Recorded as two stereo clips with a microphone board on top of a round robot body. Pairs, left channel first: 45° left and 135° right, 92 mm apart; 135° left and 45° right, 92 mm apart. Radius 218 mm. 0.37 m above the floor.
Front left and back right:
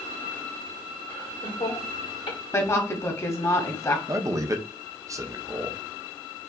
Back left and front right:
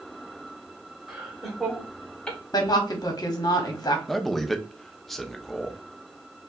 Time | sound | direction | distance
1.1 | laughter | 40° left | 2.5 m
2.5 | a woman speaking | 95° left | 1.6 m
4.1 | a man speaking | 140° right | 1.0 m